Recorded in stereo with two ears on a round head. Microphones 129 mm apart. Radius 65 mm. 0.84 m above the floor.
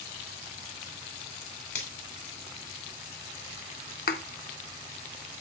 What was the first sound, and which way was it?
A finger snap, 60° left (ahead or behind).